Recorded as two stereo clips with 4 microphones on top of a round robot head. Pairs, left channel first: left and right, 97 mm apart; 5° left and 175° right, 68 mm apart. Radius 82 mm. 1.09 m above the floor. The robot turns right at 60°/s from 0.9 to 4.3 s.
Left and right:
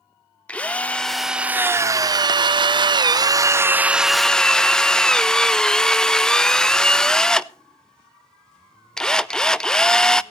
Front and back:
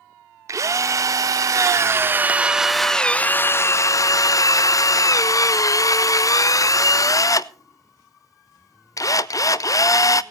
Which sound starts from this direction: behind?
A drill, at 0.5 s.